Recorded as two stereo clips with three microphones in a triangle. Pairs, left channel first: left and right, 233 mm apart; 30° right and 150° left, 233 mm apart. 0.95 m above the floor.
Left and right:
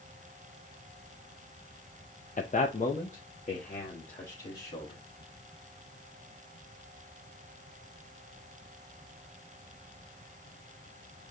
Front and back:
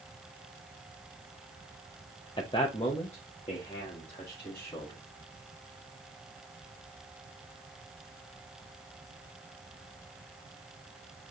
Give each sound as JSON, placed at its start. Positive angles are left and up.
{"t": 2.4, "sound": "a man speaking", "azimuth_deg": 35, "distance_m": 0.5}